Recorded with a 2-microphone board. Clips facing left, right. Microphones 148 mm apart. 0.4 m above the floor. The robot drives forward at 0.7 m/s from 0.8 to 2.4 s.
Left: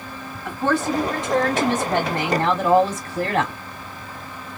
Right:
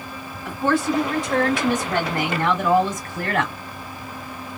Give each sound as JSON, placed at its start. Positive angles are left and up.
{"t": 0.5, "sound": "a woman speaking", "side_deg": 15, "distance_m": 2.5}